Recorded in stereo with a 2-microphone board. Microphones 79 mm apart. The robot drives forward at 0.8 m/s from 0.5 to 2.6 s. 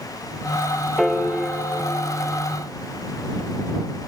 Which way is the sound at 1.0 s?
5° left (ahead or behind).